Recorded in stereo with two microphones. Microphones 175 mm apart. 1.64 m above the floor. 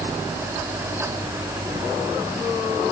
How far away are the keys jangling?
No keys jangling in this recording.